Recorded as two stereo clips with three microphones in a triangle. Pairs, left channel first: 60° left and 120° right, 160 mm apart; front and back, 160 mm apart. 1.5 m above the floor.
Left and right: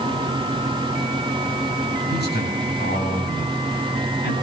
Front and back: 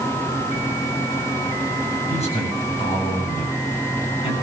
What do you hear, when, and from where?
2.1 s a man speaking: 50° left, 9.5 m; by 4.3 s 60° left, 10 m